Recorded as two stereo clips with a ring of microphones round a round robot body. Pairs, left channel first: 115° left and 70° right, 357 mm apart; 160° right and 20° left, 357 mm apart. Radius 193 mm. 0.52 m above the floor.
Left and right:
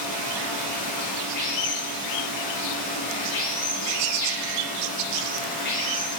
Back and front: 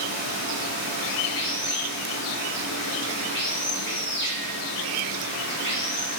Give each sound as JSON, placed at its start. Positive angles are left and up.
{"t": 0.0, "sound": "running water", "azimuth_deg": 145, "distance_m": 7.0}